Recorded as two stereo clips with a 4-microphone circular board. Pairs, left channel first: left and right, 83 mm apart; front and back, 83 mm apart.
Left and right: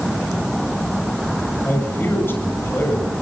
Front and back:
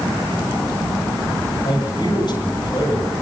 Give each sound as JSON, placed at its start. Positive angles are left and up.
{"t": 1.6, "sound": "a man speaking", "azimuth_deg": 25, "distance_m": 7.5}